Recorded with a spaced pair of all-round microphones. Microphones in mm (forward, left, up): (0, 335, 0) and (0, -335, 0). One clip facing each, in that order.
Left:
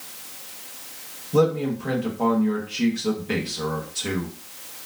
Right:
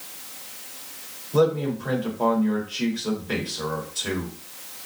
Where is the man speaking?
55° left (ahead or behind), 1.4 m.